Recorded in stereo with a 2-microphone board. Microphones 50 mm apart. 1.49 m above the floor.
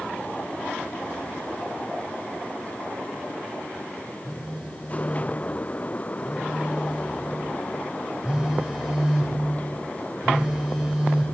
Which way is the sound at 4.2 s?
15° right (ahead or behind).